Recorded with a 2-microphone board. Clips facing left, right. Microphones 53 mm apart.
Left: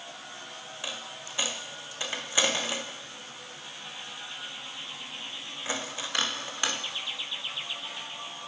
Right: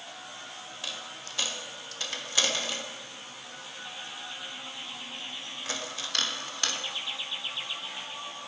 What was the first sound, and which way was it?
A dropped coin, 20° left (ahead or behind).